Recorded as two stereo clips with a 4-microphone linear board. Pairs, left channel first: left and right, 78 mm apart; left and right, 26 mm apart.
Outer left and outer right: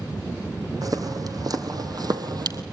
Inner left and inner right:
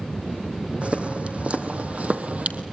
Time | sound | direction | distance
0.8 | footsteps | 50° right (ahead or behind) | 2 m